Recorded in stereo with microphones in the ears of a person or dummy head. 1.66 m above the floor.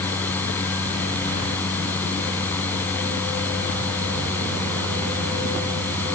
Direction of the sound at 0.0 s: 15° left (ahead or behind).